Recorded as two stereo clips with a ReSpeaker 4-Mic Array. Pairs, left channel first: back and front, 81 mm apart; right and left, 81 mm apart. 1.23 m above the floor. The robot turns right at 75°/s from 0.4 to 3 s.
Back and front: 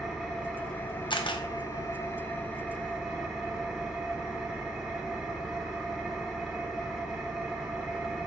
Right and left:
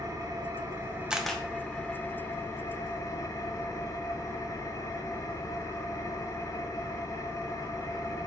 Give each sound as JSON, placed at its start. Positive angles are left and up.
{"t": 0.0, "sound": "an engine running", "azimuth_deg": 80, "distance_m": 1.1}
{"t": 1.1, "sound": "a camera shutter", "azimuth_deg": 170, "distance_m": 0.5}